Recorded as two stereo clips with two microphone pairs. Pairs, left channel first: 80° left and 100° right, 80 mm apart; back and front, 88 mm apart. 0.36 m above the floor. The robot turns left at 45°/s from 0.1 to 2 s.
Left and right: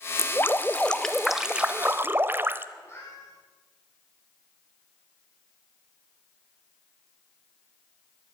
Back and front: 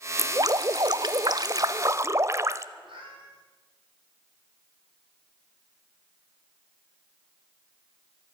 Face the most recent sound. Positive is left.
turn(degrees=20)